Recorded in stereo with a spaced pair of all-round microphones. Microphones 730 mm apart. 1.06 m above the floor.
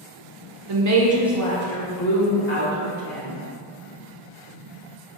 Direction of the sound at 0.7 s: 40° right (ahead or behind).